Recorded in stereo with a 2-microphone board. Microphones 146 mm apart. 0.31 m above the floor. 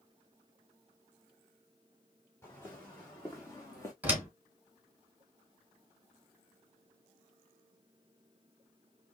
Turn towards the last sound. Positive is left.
turn(degrees=-10)  # may be behind; listen again after turning